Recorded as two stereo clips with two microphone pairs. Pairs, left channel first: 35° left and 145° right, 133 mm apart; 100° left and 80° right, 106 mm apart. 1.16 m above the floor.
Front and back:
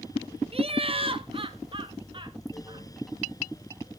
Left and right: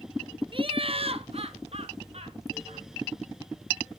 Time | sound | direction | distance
0.5 | laughter | 110° right | 0.7 m